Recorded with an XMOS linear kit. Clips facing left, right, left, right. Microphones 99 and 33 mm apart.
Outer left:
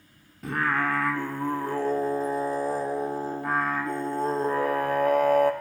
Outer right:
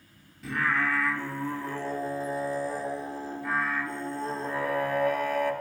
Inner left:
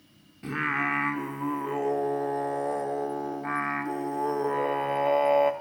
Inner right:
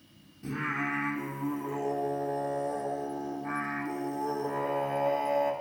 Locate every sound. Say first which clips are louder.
0.4 s singing: outer left 2 dB, inner left 5 dB; 50° left (ahead or behind), 0.8 m